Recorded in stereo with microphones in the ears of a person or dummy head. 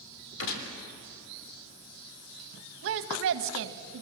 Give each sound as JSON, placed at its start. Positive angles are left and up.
{"t": 0.4, "sound": "a gunshot", "side_deg": 70, "distance_m": 3.0}
{"t": 2.8, "sound": "a woman speaking", "side_deg": -65, "distance_m": 1.2}